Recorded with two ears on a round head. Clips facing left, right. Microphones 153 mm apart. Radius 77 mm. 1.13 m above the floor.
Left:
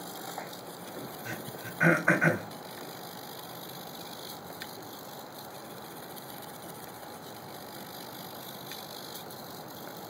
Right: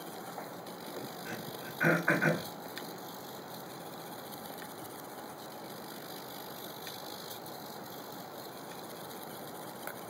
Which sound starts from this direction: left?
Throat clearing, at 1.2 s.